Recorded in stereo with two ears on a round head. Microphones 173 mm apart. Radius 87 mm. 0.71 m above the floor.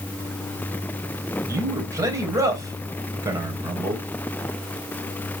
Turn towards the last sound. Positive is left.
turn(degrees=-15)  # may be behind; listen again after turning